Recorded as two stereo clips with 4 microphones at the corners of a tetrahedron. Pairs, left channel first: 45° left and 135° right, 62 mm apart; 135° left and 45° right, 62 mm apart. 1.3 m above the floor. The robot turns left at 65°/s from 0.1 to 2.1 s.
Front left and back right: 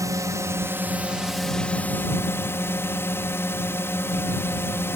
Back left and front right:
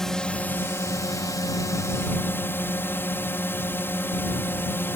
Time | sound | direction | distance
0.0 | a drone | 145° right | ?